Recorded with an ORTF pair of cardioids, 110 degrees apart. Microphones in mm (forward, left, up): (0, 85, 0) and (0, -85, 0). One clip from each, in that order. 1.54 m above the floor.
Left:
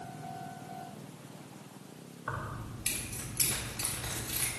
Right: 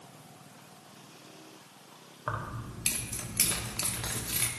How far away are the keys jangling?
About 1.4 m.